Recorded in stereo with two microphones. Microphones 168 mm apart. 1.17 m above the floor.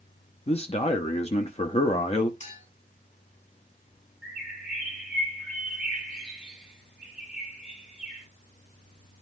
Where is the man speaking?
40° left (ahead or behind), 0.8 m.